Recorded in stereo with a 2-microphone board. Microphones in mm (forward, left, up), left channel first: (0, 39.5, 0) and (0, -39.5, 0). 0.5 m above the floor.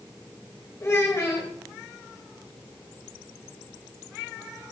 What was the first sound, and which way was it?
A child speaking, 40° left (ahead or behind).